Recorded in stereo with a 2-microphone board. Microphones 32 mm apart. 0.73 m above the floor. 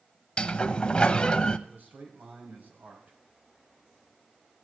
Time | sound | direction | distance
0.4 | a sliding door | 35° left (ahead or behind) | 0.7 m
1.7 | a man speaking | 60° right (ahead or behind) | 4 m